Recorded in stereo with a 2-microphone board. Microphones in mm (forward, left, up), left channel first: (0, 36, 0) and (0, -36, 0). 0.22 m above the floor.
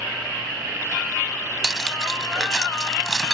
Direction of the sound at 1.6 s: 10° left (ahead or behind).